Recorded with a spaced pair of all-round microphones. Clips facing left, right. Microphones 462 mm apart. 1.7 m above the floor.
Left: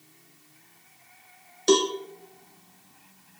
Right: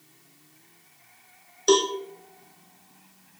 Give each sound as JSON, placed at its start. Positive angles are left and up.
{"t": 1.7, "sound": "a cowbell", "side_deg": 45, "distance_m": 1.1}